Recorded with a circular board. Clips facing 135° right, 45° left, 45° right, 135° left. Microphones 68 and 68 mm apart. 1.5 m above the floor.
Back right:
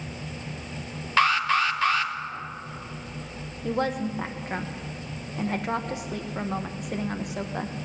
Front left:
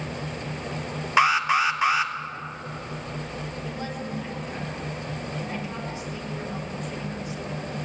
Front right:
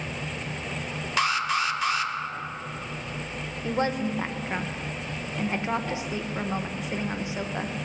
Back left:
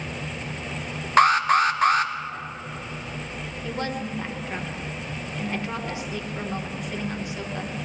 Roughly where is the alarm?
Behind left.